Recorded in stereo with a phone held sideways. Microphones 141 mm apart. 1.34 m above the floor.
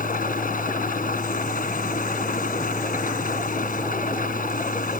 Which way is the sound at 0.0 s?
80° left.